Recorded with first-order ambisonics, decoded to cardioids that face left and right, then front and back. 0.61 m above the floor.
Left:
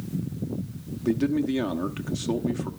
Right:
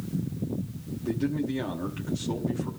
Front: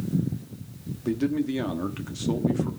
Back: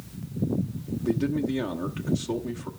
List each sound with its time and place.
1.0 s a man speaking: 65° left, 1.0 m